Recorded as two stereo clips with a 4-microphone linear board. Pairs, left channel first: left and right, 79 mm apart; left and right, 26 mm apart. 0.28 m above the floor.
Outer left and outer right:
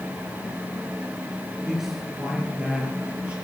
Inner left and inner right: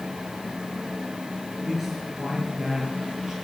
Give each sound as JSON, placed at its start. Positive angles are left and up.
{"t": 1.6, "sound": "a man speaking", "side_deg": 0, "distance_m": 5.0}